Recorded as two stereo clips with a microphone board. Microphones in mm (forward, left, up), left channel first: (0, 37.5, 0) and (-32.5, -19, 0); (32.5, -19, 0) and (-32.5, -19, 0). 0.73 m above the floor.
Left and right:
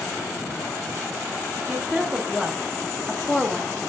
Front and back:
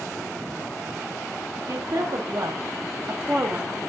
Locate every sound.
1.7 s a woman speaking: 155° left, 1.8 m; by 3.8 s 120° left, 1.0 m